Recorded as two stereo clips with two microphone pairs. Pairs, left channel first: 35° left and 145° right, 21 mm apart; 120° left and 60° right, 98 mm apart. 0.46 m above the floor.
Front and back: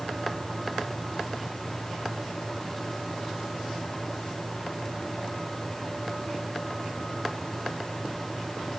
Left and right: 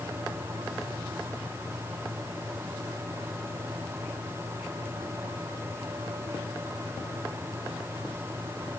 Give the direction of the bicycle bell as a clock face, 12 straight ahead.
No bicycle bell in this recording.